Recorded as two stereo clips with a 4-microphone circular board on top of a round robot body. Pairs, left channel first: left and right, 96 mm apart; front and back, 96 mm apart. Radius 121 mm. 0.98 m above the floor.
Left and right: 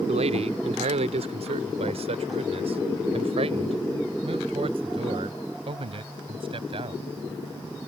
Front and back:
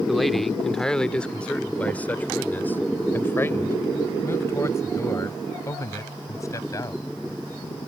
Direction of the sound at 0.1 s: 90° right.